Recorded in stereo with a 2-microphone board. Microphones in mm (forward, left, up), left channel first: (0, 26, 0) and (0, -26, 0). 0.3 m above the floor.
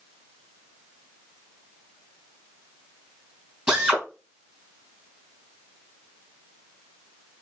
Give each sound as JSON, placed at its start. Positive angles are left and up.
{"t": 3.7, "sound": "a drill", "side_deg": -15, "distance_m": 3.0}